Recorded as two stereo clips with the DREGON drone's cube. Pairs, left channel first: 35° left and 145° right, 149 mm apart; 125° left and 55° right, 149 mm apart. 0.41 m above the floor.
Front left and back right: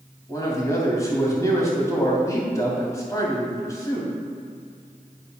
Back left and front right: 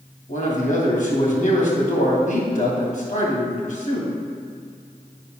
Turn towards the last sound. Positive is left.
turn(degrees=100)